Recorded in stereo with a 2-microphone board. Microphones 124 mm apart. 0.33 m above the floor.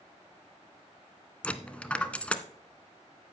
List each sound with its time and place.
1.4 s a dropped coin: 10° left (ahead or behind), 0.6 m